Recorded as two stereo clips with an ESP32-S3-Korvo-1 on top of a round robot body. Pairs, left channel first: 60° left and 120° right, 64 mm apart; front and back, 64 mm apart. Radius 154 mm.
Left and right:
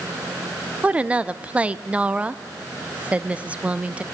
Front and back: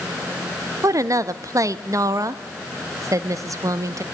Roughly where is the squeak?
I don't hear a squeak.